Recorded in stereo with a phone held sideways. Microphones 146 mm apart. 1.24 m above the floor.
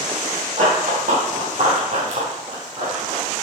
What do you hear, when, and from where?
0.6 s running footsteps: 65° right (ahead or behind), 3 m; by 3.2 s 30° right (ahead or behind), 3 m